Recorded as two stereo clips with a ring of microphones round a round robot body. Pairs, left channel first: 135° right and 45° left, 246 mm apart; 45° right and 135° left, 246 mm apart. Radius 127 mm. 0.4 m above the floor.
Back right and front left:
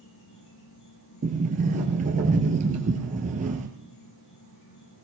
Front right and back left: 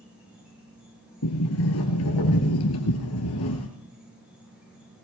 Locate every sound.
0.0 s an insect: 140° right, 6 m
1.2 s a sliding door: 15° right, 2.5 m